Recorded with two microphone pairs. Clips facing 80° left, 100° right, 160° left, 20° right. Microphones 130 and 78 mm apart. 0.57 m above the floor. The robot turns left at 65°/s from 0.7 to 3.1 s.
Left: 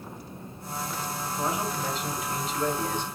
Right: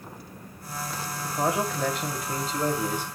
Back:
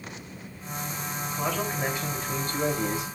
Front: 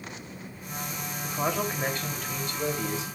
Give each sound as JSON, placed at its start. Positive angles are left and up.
{"t": 1.2, "sound": "a man speaking", "azimuth_deg": -70, "distance_m": 2.5}